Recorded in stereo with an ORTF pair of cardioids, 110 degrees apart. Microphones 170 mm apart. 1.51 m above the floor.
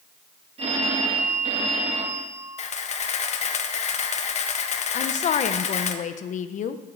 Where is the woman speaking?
50° left, 0.9 m.